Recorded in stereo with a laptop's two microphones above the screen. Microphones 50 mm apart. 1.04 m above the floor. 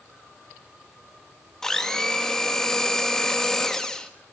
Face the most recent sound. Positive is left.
turn(degrees=10)  # may be behind; listen again after turning